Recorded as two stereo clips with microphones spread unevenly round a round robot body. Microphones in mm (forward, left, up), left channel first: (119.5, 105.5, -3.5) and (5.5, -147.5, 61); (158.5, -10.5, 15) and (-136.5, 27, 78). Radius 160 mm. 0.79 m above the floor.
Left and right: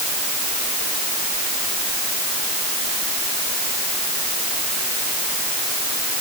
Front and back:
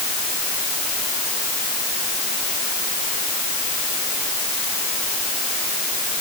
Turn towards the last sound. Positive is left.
No sound to turn to.